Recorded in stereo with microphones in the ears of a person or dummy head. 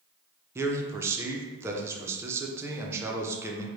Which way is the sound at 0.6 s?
15° right (ahead or behind).